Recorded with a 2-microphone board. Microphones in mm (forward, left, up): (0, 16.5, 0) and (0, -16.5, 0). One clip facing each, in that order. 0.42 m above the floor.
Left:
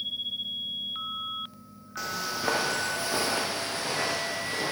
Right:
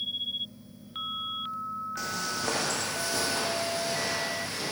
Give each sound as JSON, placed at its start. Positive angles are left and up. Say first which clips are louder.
{"t": 2.0, "sound": "footsteps", "louder": "left 5 dB", "side_deg": 5, "distance_m": 1.3}